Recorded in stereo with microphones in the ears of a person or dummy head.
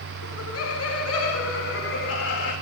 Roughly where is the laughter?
Left.